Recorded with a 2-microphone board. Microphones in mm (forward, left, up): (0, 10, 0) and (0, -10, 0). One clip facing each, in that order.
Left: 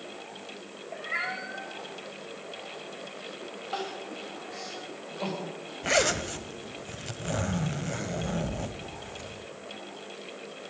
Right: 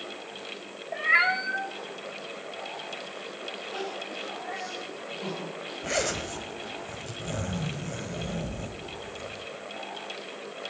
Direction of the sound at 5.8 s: 20° left (ahead or behind).